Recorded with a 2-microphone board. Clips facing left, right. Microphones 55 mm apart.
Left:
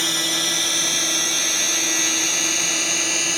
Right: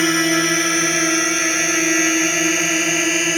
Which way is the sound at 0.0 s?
40° right (ahead or behind).